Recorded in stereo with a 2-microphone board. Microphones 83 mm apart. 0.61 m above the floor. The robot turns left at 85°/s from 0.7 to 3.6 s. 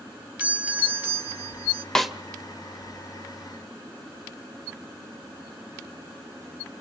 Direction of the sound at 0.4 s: 15° right (ahead or behind).